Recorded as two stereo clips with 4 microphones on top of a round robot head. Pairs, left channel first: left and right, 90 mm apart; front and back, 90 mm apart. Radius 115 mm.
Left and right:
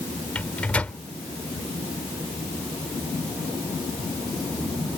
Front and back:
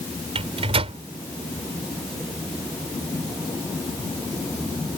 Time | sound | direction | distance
0.3 | a microwave | 170° left | ?